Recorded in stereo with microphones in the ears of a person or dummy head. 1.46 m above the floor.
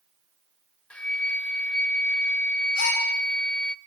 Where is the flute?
5° left (ahead or behind), 0.7 m.